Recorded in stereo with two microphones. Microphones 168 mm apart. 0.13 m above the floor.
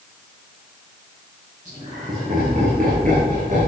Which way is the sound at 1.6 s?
45° right (ahead or behind).